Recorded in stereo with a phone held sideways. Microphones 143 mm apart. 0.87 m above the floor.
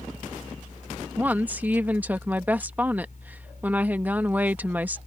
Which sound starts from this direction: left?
A fan, at 0.0 s.